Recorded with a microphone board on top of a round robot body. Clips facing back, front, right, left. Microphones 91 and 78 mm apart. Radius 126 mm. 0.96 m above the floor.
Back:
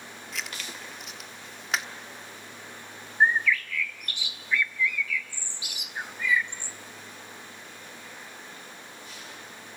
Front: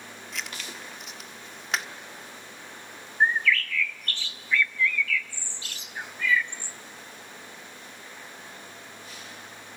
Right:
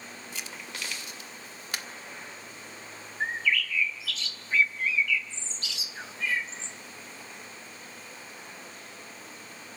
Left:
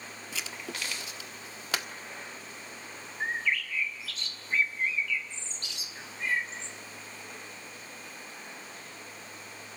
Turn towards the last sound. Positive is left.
turn(degrees=-105)